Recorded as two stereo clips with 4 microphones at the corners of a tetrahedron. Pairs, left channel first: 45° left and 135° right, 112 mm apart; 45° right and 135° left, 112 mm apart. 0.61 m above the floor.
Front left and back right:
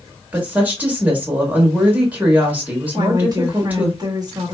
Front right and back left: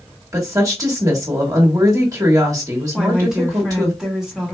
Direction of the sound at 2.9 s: 145° right.